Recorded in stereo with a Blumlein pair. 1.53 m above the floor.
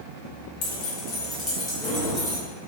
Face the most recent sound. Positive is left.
turn(degrees=-10)